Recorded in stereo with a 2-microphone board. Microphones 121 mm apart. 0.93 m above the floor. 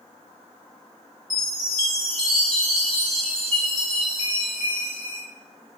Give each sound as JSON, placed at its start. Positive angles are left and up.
{"t": 1.3, "sound": "a chime", "side_deg": 5, "distance_m": 2.0}